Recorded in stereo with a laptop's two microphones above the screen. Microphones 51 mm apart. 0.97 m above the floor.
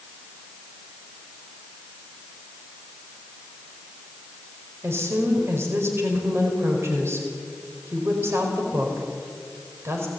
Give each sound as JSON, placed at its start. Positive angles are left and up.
{"t": 4.8, "sound": "a woman speaking", "side_deg": -55, "distance_m": 5.0}